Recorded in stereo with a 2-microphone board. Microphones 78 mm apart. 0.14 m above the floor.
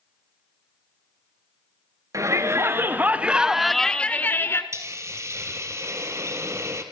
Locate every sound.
2.1 s a shout: 40° right (ahead or behind), 2.5 m; by 4.6 s 35° left (ahead or behind), 1.8 m
4.7 s a hiss: 35° right (ahead or behind), 2.5 m